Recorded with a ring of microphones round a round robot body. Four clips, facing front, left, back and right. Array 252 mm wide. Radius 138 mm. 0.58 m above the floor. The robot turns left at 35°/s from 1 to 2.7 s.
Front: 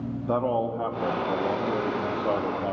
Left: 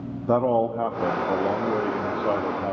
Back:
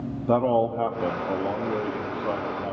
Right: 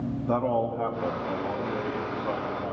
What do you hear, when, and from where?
0.3 s a man speaking: 120° left, 0.8 m; by 2.7 s 65° left, 0.8 m